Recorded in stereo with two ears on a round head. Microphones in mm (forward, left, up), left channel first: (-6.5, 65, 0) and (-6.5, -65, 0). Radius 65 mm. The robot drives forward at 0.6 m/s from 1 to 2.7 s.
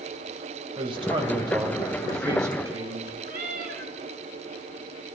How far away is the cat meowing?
About 4.5 m.